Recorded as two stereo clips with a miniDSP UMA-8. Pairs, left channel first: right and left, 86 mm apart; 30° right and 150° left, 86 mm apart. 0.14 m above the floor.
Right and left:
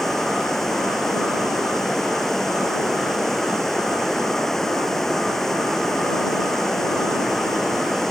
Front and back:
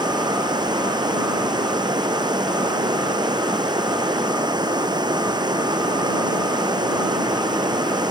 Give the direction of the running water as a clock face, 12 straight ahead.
6 o'clock.